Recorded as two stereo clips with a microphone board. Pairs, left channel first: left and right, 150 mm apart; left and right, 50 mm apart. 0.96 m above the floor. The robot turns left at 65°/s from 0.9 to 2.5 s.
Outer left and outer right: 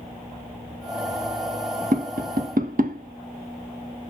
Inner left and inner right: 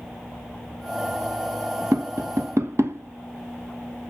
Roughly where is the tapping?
Right.